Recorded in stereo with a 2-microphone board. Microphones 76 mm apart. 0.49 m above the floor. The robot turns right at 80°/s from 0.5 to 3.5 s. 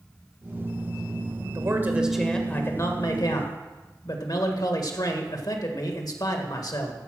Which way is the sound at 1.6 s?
55° right.